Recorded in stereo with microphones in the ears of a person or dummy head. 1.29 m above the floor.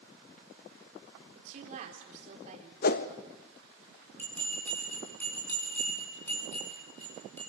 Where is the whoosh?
55° left (ahead or behind), 1.1 m.